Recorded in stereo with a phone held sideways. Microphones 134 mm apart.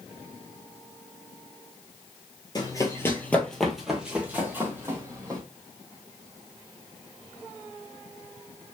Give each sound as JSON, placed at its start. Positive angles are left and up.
{"t": 2.5, "sound": "running footsteps", "side_deg": 30, "distance_m": 1.3}